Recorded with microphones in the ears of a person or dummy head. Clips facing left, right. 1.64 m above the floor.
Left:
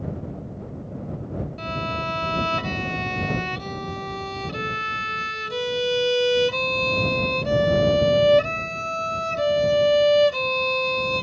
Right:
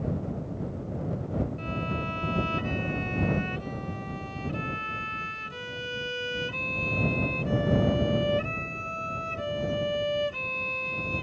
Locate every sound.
1.6 s a violin: 80° left